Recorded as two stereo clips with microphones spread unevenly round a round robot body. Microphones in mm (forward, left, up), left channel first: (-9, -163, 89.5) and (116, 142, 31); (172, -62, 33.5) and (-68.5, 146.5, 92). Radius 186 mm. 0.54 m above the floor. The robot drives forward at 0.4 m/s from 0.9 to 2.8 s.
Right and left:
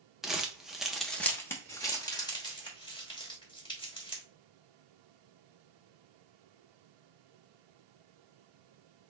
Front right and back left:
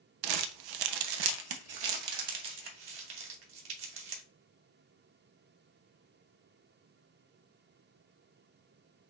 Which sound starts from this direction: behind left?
Crumpling, at 0.2 s.